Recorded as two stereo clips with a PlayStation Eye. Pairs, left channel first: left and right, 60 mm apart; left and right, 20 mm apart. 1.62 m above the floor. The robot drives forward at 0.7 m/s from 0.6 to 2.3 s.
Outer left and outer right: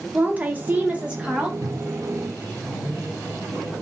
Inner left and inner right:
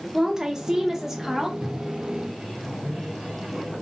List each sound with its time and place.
0.1 s a woman speaking: 25° right (ahead or behind), 0.6 m; by 1.5 s 15° right (ahead or behind), 1.1 m
1.6 s a microwave: 50° right (ahead or behind), 2.5 m; by 3.8 s 40° right (ahead or behind), 3 m